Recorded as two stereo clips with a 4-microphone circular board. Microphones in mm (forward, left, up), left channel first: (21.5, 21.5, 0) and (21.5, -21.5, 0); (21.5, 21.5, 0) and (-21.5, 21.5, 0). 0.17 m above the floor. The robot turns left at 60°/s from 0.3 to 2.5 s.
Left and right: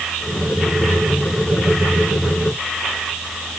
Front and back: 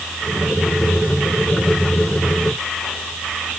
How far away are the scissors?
No scissors in this recording.